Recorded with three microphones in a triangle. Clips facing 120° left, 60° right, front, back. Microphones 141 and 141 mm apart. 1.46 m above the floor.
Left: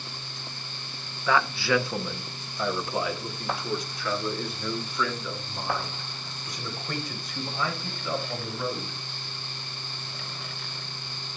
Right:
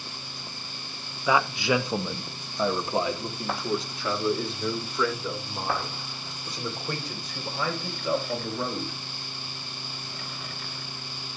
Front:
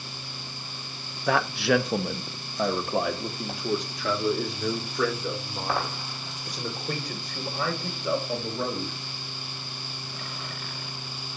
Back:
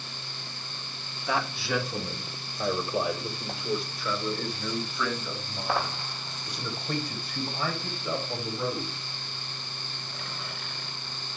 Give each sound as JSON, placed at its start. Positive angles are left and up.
{"t": 1.3, "sound": "a man speaking", "azimuth_deg": 15, "distance_m": 0.9}